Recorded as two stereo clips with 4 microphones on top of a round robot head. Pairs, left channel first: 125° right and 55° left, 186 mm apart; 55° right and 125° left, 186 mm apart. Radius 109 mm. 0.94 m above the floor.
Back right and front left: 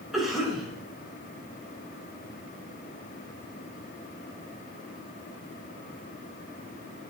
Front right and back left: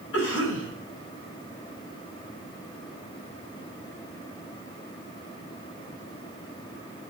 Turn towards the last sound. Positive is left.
turn(degrees=-35)